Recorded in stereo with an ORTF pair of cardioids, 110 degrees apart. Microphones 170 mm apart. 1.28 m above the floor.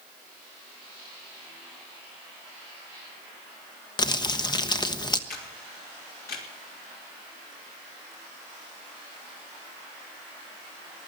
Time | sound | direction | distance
4.0 | crumpling | 25° left | 1.1 m
5.3 | a camera shutter | 60° left | 3.5 m